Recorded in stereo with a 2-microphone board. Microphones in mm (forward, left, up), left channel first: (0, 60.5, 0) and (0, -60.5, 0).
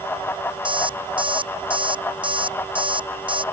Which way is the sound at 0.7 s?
45° right (ahead or behind).